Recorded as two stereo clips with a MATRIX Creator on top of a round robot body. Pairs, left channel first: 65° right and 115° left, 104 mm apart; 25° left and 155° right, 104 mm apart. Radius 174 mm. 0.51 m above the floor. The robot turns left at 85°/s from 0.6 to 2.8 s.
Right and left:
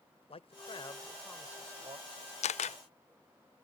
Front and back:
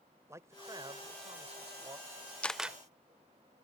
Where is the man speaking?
95° right; by 2.3 s 120° left.